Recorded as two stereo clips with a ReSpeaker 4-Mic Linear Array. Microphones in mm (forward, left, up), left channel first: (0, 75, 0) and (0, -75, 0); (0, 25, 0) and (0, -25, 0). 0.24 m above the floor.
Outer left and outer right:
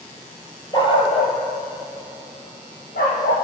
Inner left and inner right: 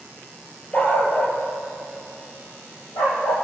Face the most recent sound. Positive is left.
turn(degrees=85)